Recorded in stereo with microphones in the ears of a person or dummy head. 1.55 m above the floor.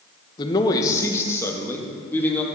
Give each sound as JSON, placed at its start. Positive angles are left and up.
{"t": 0.4, "sound": "a man speaking", "side_deg": 30, "distance_m": 1.0}